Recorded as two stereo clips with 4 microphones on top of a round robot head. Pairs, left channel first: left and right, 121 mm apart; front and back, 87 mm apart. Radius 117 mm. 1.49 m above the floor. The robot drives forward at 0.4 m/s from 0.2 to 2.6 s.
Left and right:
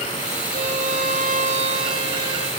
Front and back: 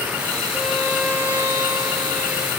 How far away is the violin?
About 1.1 m.